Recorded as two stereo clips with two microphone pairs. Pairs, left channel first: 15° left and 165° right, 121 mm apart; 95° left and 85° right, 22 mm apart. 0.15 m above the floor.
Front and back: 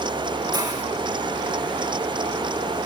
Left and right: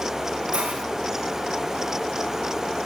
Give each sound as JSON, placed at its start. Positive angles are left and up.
{"t": 0.5, "sound": "a hiss", "azimuth_deg": -110, "distance_m": 6.5}